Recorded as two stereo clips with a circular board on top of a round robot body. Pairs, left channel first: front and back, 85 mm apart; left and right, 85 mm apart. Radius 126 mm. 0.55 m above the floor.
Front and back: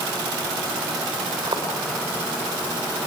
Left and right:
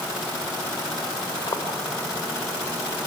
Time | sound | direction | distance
1.4 | footsteps | 140° left | 6 m